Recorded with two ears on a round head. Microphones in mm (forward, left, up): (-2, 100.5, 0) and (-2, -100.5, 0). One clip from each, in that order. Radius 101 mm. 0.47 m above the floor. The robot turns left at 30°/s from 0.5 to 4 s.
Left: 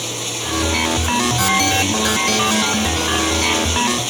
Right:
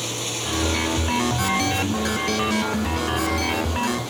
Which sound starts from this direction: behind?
Running water, at 0.0 s.